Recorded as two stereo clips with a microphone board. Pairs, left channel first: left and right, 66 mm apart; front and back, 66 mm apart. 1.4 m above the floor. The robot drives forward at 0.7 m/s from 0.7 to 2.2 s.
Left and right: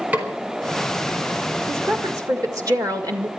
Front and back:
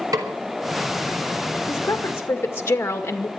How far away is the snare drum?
About 4.5 m.